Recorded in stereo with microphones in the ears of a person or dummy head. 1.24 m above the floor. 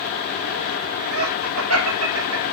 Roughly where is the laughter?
Right.